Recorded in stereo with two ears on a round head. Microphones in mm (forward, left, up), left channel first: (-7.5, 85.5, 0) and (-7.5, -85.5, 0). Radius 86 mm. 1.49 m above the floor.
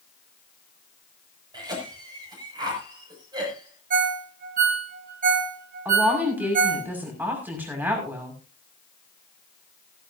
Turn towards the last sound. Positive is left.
turn(degrees=-10)  # may be behind; listen again after turning